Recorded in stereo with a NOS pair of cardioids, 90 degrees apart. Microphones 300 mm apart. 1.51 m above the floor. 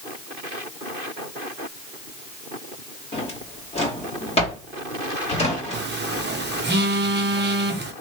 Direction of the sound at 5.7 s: 35° right.